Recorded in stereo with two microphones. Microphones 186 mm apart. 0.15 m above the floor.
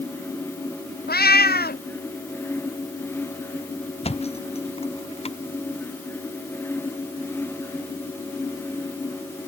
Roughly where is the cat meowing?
Left.